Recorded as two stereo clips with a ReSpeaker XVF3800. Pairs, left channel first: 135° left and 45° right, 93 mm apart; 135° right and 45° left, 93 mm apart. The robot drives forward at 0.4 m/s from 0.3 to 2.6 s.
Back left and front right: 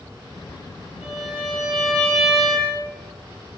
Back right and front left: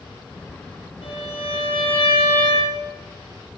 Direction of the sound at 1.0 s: 135° right.